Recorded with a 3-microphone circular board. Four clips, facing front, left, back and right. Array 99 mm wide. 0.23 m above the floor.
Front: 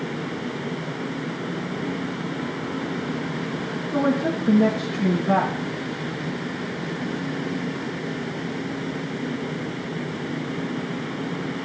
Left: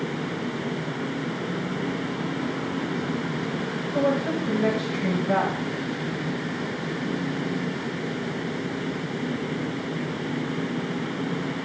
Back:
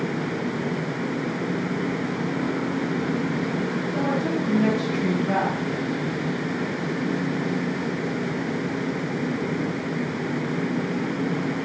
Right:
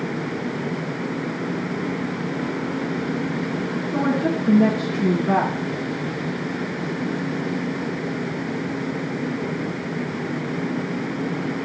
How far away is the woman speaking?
About 2.5 m.